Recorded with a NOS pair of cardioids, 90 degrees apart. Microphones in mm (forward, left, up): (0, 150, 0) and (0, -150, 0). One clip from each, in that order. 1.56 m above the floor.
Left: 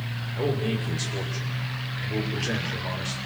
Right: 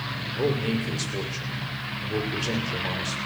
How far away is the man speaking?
About 6.5 m.